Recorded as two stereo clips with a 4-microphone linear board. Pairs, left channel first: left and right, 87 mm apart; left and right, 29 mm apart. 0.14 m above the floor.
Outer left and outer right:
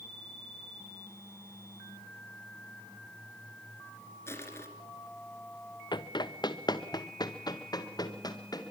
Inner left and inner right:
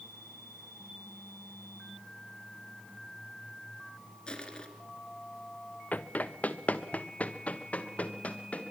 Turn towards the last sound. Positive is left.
turn(degrees=50)  # may be behind; listen again after turning